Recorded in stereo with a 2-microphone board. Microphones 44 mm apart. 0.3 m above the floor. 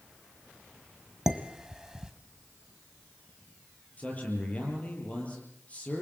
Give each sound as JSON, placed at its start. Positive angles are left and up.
{"t": 1.3, "sound": "dishes clattering", "side_deg": -15, "distance_m": 1.5}
{"t": 4.0, "sound": "a man speaking", "side_deg": 30, "distance_m": 8.5}